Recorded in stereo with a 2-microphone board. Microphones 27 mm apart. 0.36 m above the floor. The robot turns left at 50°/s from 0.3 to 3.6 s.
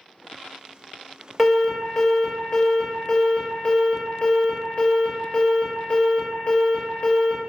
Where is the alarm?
165° right, 0.7 m; by 7.4 s 85° left, 0.7 m.